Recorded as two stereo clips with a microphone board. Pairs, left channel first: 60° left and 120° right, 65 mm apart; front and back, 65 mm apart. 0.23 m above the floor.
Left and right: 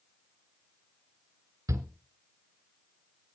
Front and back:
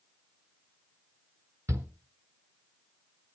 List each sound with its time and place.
1.7 s a shout: 145° right, 2.5 m